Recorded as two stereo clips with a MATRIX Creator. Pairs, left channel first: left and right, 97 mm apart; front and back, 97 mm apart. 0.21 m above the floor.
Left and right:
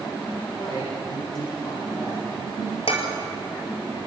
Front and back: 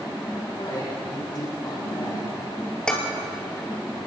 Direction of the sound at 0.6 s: 60° left.